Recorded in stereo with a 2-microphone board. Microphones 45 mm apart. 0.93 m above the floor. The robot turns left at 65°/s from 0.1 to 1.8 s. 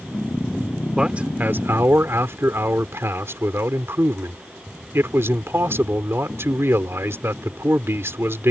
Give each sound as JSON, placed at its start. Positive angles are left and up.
{"t": 1.0, "sound": "a man speaking", "azimuth_deg": -15}